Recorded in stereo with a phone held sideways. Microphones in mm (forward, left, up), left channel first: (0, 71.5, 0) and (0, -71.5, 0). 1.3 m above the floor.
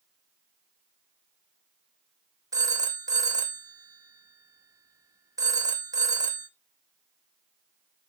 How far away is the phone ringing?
About 1.7 m.